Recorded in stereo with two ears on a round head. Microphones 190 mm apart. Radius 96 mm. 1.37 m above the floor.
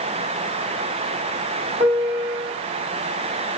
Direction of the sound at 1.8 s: 20° right (ahead or behind).